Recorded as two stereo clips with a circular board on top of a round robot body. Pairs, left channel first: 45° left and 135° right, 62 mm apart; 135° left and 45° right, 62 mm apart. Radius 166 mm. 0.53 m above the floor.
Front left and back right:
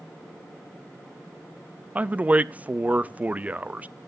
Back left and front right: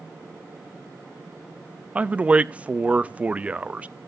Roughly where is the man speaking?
Right.